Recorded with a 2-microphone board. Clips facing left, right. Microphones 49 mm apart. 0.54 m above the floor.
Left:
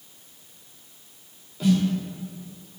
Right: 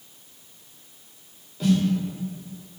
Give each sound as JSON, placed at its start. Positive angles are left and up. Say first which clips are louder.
{"t": 1.6, "sound": "a snare drum", "louder": "even", "side_deg": 5, "distance_m": 0.9}